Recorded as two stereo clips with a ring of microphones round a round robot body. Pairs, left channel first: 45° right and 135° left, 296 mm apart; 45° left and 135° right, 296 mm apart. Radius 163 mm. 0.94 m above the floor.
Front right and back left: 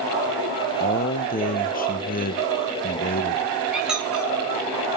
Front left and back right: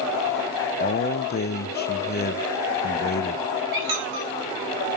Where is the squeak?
135° right, 3.5 m.